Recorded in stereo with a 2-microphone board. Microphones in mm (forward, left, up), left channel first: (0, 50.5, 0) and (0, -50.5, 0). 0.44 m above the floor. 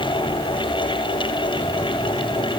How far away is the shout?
I don't hear a shout.